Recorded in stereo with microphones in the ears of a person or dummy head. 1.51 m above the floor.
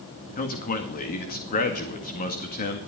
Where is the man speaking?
40° left (ahead or behind), 2 m.